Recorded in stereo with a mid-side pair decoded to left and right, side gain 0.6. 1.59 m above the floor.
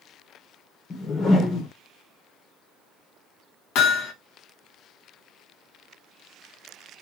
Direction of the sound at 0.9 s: 40° left.